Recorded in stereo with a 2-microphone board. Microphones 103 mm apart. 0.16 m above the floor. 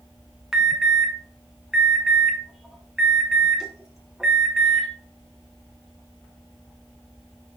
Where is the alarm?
5° right (ahead or behind), 1.6 m.